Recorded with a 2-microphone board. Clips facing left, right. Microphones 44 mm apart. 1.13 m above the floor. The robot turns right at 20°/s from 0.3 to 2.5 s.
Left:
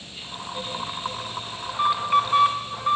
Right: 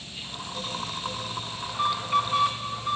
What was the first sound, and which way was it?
An alarm, 20° left (ahead or behind).